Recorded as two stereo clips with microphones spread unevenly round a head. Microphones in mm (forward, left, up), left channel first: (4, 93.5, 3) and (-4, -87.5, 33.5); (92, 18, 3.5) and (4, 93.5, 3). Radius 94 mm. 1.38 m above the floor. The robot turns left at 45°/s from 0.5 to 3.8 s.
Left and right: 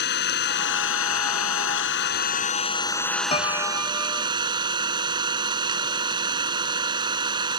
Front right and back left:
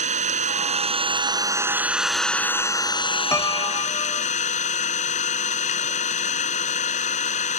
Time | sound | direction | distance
0.0 | an engine running | 125° left | ?
3.3 | a piano | 25° left | ?